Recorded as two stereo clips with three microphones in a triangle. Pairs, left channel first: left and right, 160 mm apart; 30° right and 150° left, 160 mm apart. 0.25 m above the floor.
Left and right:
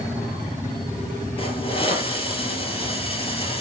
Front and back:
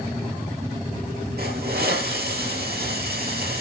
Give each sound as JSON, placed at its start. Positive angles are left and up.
{"t": 1.4, "sound": "a hiss", "azimuth_deg": 145, "distance_m": 6.0}